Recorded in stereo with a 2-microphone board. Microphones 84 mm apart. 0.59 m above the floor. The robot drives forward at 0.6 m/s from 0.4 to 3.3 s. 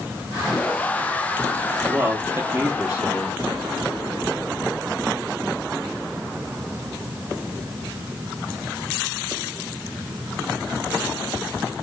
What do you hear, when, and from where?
1.9 s a man speaking: 20° right (ahead or behind), 0.8 m